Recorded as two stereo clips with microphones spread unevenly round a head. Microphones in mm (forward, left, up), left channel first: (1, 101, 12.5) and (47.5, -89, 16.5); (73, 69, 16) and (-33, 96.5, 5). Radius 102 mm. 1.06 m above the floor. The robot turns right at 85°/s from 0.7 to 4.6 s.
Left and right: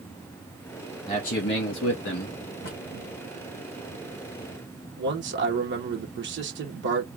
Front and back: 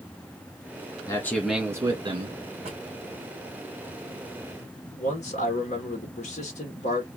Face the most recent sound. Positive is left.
turn(degrees=-45)